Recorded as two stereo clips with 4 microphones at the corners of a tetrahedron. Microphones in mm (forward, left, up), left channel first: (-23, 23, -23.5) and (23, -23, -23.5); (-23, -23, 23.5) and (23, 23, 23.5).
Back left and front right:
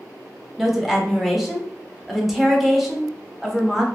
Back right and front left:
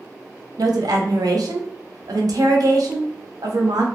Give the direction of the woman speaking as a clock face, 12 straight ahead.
11 o'clock.